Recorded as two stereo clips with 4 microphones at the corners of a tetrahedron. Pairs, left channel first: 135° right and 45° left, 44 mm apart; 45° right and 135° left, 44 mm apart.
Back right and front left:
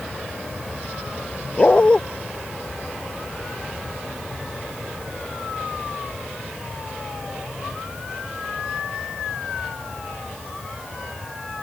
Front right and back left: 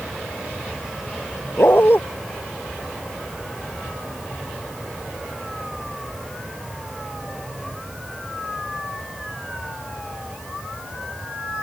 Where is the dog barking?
70° right.